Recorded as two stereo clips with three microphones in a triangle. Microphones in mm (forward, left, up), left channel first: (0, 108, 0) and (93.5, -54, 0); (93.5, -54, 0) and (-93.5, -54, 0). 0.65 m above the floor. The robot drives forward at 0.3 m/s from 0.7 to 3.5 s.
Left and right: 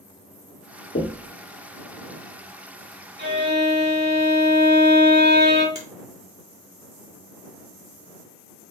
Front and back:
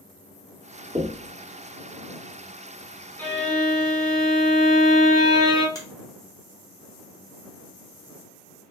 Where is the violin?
80° right, 1.5 m; by 5.7 s 85° right, 1.5 m.